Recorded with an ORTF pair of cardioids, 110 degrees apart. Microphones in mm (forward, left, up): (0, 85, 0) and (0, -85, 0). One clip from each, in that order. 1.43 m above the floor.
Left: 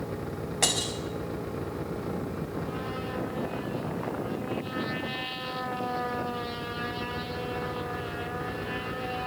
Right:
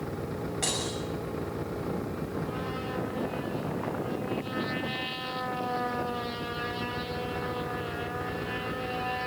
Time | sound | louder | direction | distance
0.6 | breaking glass | left 5 dB | 45° left | 5.5 m